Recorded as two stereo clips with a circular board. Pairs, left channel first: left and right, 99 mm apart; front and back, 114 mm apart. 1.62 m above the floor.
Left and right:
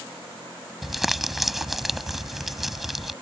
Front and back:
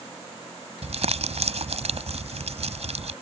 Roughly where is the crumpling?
Behind.